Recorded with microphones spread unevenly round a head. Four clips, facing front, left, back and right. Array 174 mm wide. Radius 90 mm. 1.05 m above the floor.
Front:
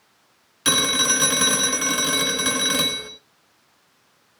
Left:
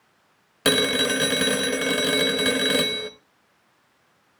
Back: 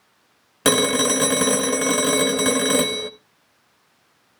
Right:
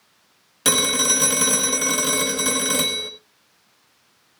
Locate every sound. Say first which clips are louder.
0.7 s a phone ringing: left 2 dB, back 5 dB; 160° left, 0.8 m